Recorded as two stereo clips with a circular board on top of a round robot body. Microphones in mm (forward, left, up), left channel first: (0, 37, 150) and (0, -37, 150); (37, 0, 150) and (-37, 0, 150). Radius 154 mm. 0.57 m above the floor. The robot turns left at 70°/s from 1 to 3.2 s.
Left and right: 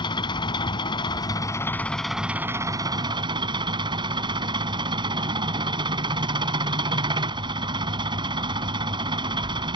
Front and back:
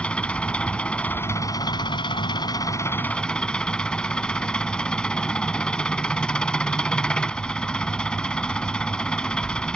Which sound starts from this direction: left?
An engine running, at 0.0 s.